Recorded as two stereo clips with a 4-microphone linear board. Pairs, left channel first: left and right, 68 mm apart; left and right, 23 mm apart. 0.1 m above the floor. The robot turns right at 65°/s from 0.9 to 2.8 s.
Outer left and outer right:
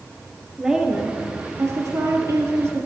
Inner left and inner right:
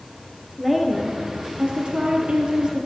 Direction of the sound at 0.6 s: 165° right.